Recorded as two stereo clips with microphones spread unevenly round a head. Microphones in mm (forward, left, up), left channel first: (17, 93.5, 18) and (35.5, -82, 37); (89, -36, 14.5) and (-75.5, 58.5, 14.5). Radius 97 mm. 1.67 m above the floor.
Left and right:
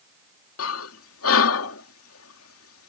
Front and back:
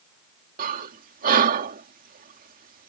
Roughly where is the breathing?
Left.